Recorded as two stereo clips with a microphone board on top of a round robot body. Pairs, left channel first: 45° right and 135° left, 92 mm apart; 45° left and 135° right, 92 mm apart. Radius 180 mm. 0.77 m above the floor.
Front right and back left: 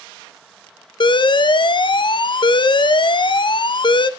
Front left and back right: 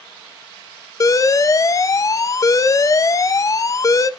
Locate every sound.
1.0 s an alarm: 10° right, 0.5 m